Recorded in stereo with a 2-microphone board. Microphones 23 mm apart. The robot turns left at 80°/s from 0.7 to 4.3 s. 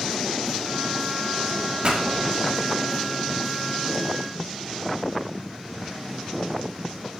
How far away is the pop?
About 1.8 m.